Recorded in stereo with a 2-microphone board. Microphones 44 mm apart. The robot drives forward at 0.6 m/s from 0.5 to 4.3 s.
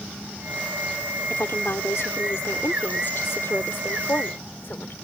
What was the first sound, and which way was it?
A woman speaking, 85° left.